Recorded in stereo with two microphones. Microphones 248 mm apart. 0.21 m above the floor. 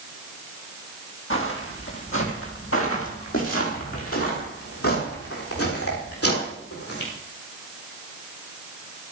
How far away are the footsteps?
About 5.5 m.